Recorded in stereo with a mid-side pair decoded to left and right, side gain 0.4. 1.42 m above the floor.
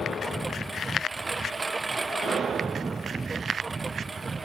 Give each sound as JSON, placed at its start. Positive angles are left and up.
{"t": 0.0, "sound": "a lawn mower", "azimuth_deg": -25}